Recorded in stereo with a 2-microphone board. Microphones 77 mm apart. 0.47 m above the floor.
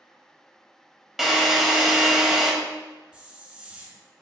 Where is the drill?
5° right (ahead or behind), 0.7 m.